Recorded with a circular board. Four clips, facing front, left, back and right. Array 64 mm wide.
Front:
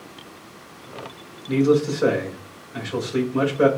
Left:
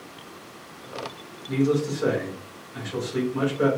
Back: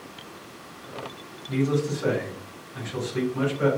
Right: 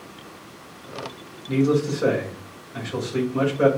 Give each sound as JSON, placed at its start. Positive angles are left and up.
{"t": 1.5, "sound": "a man speaking", "azimuth_deg": -15, "distance_m": 3.0}